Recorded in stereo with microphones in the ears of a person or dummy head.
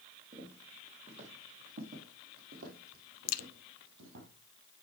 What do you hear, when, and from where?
0.3 s footsteps: 35° right (ahead or behind), 3 m; by 4.3 s 60° right (ahead or behind), 2 m
3.3 s a crack: 45° left (ahead or behind), 0.6 m